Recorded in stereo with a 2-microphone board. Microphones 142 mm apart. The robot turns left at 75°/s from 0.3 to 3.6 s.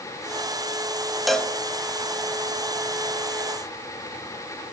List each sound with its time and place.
1.3 s a cowbell: centre (ahead or behind), 0.8 m; by 1.5 s 10° left (ahead or behind), 0.8 m